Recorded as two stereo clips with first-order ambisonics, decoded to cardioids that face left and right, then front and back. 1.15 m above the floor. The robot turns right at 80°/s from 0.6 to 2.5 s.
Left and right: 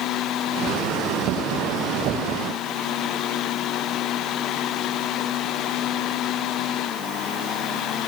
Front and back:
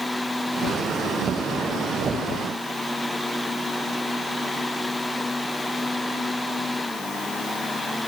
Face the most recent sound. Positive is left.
No sound to turn to.